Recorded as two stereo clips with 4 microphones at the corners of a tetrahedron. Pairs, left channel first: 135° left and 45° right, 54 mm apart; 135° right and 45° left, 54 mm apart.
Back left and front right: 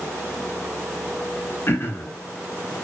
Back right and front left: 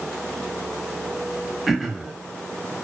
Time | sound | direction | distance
1.7 | throat clearing | 130° left | 0.5 m